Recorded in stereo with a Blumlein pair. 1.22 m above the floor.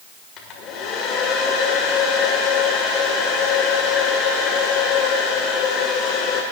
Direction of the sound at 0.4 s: 30° left.